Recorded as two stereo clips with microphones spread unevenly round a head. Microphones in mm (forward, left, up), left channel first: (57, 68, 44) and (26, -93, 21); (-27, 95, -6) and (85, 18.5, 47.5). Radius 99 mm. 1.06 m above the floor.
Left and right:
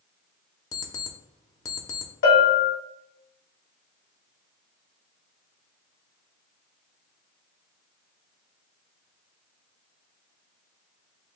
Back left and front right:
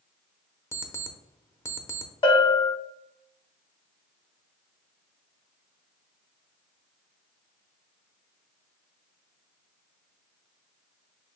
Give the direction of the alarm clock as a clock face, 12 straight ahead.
10 o'clock.